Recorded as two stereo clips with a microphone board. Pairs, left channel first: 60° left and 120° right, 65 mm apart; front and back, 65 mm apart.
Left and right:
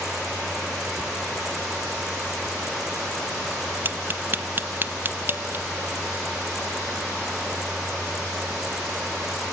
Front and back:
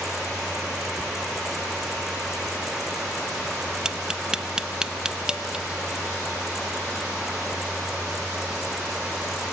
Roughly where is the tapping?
Right.